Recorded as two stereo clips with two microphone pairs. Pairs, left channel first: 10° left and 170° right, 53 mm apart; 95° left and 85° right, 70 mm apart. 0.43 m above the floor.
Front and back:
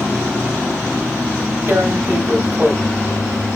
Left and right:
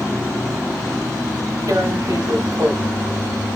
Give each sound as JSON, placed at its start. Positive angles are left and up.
{"t": 1.7, "sound": "tearing paper", "azimuth_deg": -120, "distance_m": 1.5}